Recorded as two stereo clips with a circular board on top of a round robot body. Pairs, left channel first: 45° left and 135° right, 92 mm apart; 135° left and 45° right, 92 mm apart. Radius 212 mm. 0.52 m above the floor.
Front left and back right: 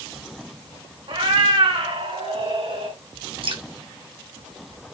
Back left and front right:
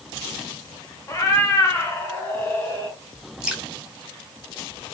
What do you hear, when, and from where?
1.1 s a cat meowing: 165° right, 2.5 m; by 3.0 s 155° right, 4 m
3.4 s dripping: 125° right, 3.5 m